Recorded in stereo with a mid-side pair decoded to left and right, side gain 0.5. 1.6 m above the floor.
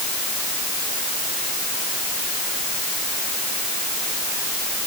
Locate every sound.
Only background noise.